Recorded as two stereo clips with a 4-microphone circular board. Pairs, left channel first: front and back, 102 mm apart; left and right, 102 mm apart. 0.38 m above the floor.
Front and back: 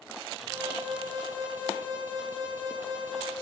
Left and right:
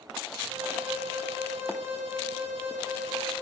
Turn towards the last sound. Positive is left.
turn(degrees=-110)